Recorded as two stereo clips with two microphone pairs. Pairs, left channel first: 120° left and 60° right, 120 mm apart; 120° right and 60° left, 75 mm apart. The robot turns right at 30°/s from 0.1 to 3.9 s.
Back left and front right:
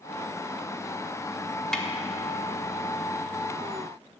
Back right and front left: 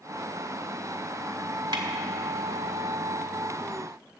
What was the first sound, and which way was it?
A snare drum, 35° left.